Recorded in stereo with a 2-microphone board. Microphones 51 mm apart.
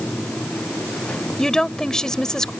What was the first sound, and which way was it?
A woman speaking, 15° left (ahead or behind).